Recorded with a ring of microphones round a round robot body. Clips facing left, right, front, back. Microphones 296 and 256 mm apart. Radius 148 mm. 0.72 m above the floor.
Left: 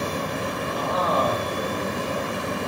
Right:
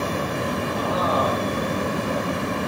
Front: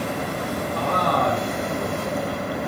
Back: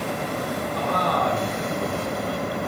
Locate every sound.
0.7 s a man speaking: 5° right, 1.5 m